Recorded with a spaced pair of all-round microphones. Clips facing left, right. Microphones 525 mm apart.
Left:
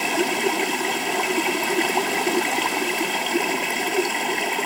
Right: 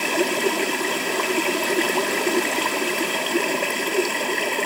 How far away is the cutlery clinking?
I don't hear cutlery clinking.